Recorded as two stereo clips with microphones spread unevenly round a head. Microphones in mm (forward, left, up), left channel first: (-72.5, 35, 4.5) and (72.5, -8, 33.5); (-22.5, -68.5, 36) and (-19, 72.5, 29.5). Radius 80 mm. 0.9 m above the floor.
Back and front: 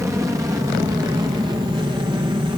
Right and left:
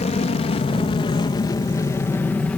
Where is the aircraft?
90° right; by 2.6 s 15° right.